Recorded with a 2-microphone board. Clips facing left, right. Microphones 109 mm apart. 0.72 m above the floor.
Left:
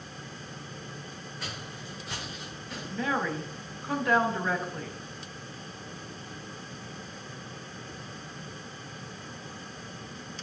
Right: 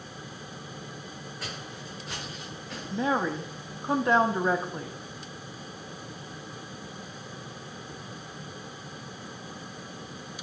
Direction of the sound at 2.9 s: 25° right (ahead or behind).